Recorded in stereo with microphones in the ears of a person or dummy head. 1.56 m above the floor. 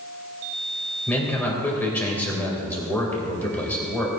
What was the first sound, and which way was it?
A man speaking, 10° left (ahead or behind).